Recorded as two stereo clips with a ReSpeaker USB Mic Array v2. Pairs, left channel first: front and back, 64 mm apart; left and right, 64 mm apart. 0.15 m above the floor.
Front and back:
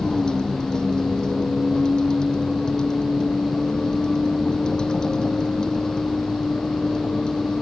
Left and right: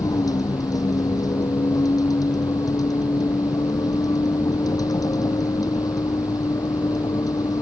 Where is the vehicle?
75° left.